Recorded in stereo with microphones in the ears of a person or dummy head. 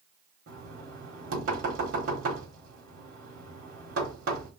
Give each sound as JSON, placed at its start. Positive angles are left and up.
{"t": 0.5, "sound": "knocking", "side_deg": -65, "distance_m": 1.5}